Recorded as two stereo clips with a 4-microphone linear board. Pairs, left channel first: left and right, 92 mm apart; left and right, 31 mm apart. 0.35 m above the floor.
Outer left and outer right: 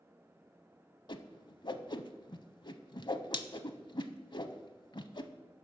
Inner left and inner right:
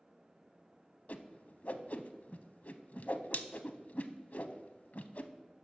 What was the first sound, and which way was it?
A whoosh, 55° left (ahead or behind).